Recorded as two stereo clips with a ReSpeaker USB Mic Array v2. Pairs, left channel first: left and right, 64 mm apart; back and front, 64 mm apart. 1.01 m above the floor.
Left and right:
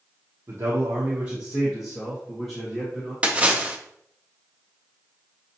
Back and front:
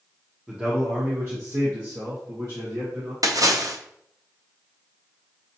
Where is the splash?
20° right, 0.5 m.